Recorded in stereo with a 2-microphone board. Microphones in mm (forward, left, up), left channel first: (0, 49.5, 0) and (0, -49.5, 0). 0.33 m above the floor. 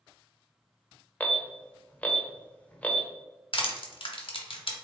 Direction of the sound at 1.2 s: 15° left (ahead or behind).